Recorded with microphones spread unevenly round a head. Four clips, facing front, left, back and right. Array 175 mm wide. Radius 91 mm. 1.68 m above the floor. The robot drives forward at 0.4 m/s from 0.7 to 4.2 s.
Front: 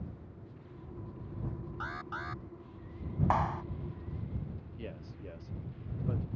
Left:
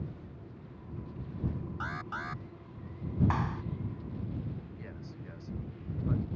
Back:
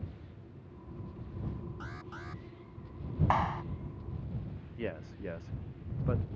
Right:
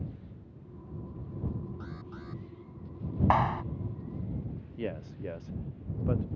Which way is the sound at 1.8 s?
65° left.